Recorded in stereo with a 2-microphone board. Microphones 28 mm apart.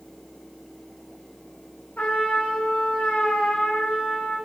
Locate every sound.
2.0 s a trumpet: 65° left (ahead or behind), 3 m